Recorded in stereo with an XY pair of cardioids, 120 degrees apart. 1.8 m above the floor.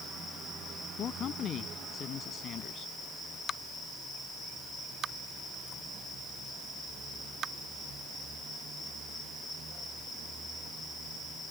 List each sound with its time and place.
1.0 s a man speaking: 55° left